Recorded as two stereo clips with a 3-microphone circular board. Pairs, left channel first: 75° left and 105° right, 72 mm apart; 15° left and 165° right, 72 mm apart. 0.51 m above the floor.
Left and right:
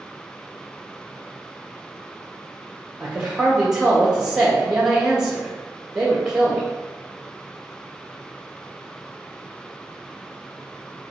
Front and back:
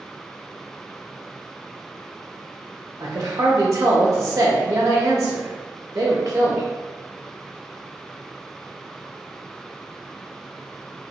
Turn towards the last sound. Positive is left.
turn(degrees=175)